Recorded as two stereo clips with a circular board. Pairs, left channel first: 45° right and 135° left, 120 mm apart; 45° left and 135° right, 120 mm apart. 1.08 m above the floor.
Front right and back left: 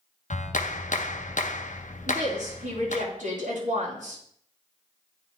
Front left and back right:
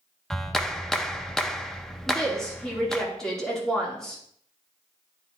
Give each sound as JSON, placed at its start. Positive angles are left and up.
{"t": 0.3, "sound": "a clap", "azimuth_deg": -40, "distance_m": 0.6}
{"t": 2.1, "sound": "a woman speaking", "azimuth_deg": 130, "distance_m": 3.0}